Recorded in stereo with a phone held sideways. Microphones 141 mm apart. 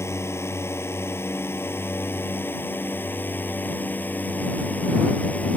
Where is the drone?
20° left (ahead or behind); by 5.6 s 10° left (ahead or behind).